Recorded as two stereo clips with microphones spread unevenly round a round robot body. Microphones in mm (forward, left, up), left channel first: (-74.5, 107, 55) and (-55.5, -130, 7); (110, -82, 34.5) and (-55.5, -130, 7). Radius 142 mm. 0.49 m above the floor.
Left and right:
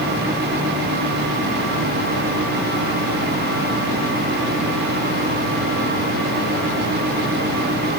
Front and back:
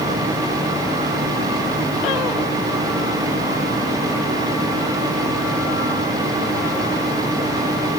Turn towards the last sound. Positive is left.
No sound to turn to.